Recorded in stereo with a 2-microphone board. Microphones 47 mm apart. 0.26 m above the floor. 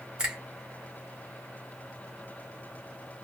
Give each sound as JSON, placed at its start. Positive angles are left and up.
{"t": 0.2, "sound": "a finger snap", "side_deg": -20, "distance_m": 1.4}